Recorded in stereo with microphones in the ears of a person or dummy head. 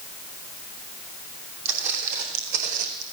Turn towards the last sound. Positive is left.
turn(degrees=-45)  # may be behind; listen again after turning